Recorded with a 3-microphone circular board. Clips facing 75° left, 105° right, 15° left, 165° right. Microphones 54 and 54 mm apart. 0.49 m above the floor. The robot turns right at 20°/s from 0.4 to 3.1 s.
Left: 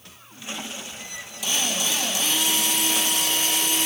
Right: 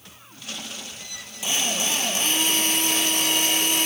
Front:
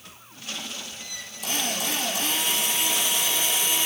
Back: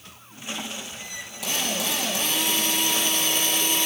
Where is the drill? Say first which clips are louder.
Right 1 dB, back 1 dB; 170° right, 6.5 m; by 3.9 s 135° right, 6.5 m.